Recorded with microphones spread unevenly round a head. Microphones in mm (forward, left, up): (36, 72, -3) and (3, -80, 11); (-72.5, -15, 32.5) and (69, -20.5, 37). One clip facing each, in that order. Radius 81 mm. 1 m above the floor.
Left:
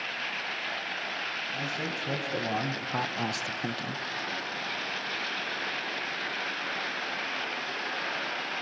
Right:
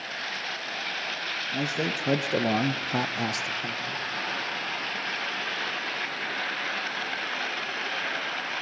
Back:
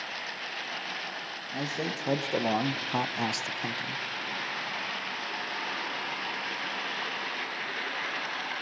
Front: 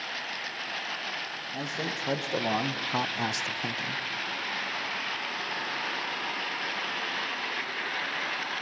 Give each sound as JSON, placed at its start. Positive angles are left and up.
{"t": 1.5, "sound": "a man speaking", "azimuth_deg": -105, "distance_m": 1.4}